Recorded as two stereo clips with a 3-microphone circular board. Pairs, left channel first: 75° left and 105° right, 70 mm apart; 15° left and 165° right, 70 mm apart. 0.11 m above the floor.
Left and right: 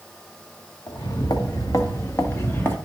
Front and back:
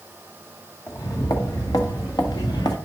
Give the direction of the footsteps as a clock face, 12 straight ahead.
10 o'clock.